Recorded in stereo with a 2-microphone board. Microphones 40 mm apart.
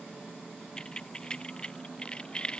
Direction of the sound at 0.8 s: 20° left (ahead or behind).